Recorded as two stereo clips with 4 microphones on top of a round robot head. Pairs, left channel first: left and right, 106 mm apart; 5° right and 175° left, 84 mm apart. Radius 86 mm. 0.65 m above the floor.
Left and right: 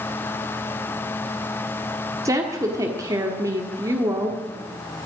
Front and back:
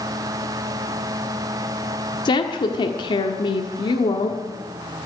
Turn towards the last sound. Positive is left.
turn(degrees=-30)